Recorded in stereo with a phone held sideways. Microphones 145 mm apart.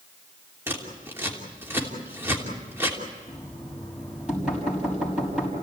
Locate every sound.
0.7 s scissors: 15° right (ahead or behind), 3 m
3.3 s knocking: 5° right (ahead or behind), 6 m